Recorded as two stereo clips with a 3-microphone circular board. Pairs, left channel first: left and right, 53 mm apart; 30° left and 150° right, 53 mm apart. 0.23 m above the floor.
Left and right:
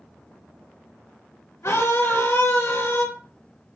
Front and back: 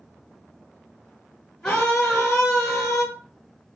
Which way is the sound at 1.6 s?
90° left.